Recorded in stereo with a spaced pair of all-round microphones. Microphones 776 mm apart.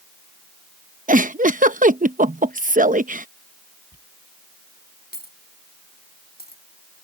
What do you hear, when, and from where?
1.1 s a giggle: 10° right (ahead or behind)
3.9 s a dropped coin: 10° left (ahead or behind)